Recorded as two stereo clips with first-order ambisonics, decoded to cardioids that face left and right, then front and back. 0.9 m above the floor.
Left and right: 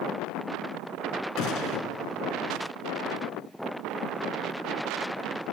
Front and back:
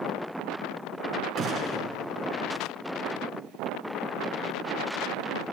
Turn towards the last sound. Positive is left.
turn(degrees=125)